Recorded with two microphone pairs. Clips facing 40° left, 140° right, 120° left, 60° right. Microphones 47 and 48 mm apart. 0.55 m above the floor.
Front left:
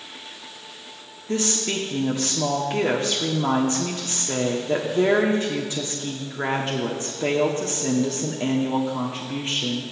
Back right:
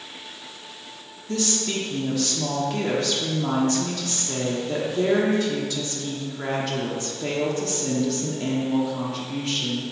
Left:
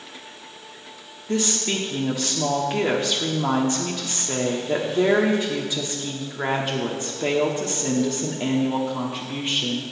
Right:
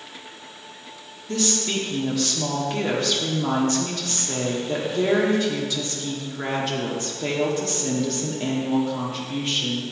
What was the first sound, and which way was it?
A woman speaking, 65° left.